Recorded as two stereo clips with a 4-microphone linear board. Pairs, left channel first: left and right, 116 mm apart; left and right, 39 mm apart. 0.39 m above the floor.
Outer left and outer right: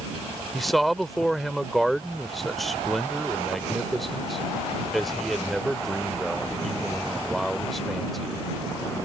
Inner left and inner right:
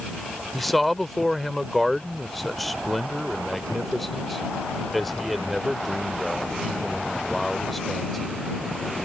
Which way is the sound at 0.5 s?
Centre (ahead or behind).